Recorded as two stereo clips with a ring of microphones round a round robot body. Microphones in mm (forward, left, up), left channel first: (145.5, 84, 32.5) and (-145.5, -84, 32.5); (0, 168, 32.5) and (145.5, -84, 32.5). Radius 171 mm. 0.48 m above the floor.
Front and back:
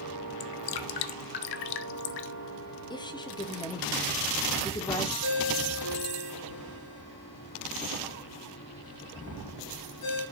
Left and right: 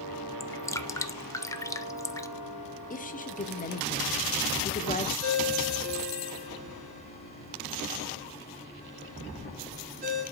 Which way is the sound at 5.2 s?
5° right.